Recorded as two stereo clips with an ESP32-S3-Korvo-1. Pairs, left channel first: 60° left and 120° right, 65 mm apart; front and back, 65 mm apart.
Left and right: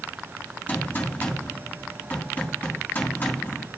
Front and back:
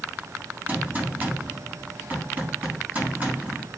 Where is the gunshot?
120° left, 3 m.